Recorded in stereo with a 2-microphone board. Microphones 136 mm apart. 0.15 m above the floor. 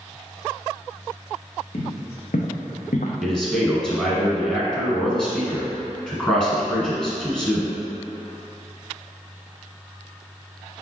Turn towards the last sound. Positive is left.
turn(degrees=5)  # may be behind; listen again after turning